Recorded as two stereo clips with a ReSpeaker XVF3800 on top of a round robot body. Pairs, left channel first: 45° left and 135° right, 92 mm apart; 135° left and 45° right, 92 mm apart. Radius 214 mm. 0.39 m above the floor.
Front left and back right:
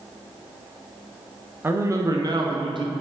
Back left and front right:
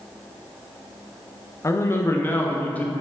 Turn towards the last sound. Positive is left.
turn(degrees=-150)